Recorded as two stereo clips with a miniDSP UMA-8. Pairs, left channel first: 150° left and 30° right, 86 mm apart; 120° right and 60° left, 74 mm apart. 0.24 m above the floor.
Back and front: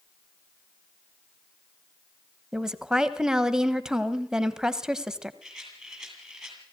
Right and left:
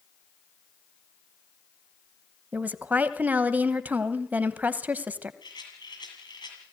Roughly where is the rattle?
Behind right.